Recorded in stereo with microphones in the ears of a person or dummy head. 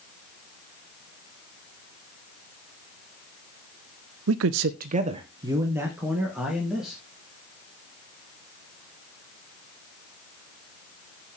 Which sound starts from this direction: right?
A man speaking, at 4.3 s.